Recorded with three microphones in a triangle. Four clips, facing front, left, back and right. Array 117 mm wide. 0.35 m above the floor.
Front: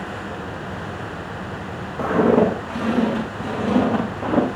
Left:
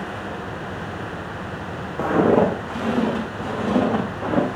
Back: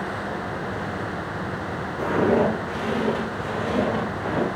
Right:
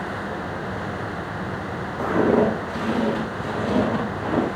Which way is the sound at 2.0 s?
65° left.